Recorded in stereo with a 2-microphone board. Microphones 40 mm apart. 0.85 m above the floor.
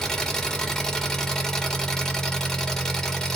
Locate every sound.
0.0 s an engine running: 15° left (ahead or behind), 0.7 m